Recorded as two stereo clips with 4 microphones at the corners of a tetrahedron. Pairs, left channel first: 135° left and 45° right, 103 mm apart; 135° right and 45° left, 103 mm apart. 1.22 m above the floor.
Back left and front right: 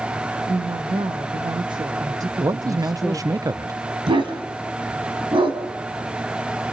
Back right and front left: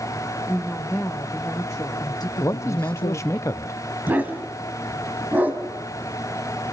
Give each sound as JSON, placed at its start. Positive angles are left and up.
{"t": 0.5, "sound": "a woman speaking", "azimuth_deg": -60, "distance_m": 1.5}
{"t": 2.4, "sound": "a man speaking", "azimuth_deg": -80, "distance_m": 0.6}
{"t": 4.1, "sound": "a dog barking", "azimuth_deg": -25, "distance_m": 2.5}